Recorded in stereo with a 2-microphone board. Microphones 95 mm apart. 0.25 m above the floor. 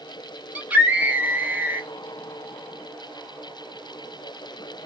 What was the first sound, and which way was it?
A scream, 20° right (ahead or behind).